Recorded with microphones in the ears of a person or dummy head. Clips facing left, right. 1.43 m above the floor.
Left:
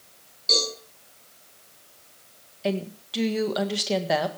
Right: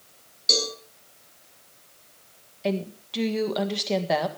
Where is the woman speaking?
5° left (ahead or behind), 1.7 m.